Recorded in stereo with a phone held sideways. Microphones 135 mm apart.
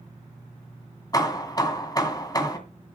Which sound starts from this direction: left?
Hammering, at 1.1 s.